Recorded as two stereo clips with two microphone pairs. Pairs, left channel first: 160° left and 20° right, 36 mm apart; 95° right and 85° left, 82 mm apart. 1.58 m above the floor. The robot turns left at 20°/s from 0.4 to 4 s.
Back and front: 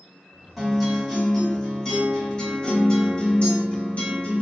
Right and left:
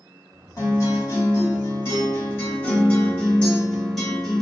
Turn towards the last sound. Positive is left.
turn(degrees=-175)